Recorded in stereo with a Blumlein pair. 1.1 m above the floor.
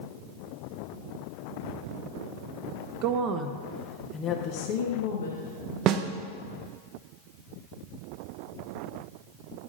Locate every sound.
3.0 s a woman speaking: 40° right, 0.7 m; by 5.8 s 70° left, 1.3 m
5.9 s a snare drum: 35° right, 0.6 m